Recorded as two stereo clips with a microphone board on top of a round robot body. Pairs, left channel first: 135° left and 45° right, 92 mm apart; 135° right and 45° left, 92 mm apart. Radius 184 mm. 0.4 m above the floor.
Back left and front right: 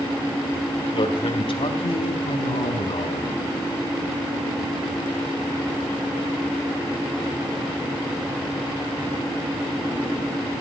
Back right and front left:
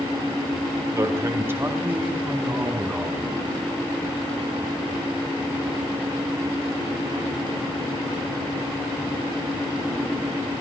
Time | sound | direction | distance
0.9 | a man speaking | 105° left | 4 m